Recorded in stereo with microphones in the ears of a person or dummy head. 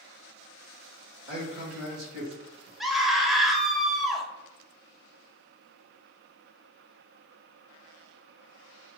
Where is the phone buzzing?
I don't hear a phone buzzing.